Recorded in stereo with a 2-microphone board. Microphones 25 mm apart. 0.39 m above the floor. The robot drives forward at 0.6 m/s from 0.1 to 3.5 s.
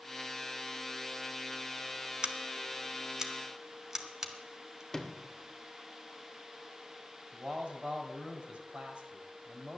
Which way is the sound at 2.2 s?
40° right (ahead or behind).